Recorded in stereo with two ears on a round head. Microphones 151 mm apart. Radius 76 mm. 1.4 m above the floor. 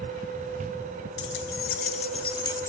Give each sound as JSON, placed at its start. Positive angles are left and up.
{"t": 1.2, "sound": "keys jangling", "side_deg": 75, "distance_m": 1.1}